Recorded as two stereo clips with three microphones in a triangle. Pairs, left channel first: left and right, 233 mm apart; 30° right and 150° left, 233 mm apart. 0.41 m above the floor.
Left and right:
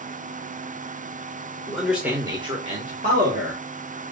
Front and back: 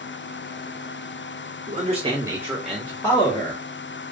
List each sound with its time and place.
1.7 s a man speaking: 175° left, 1.1 m; by 3.6 s 85° right, 1.4 m